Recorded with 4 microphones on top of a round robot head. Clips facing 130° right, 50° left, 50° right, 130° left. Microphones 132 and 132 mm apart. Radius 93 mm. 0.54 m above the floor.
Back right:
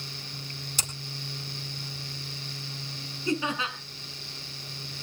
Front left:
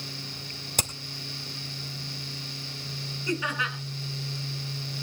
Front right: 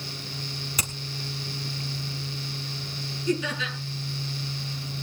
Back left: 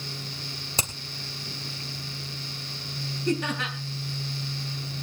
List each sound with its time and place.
0.8 s hammering: 70° left, 2.5 m
3.3 s laughter: 160° left, 6 m